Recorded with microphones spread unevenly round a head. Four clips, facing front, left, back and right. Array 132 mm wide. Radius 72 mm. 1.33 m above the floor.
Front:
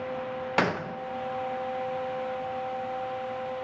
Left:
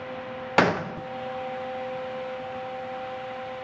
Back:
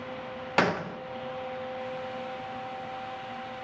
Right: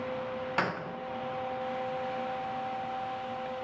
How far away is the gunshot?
About 0.7 m.